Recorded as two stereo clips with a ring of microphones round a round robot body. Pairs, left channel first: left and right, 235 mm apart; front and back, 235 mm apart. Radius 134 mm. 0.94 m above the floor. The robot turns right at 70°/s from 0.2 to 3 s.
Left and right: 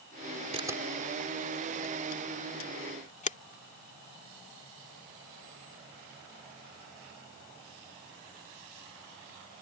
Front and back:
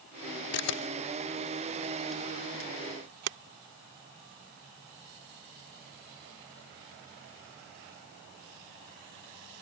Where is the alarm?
I don't hear an alarm.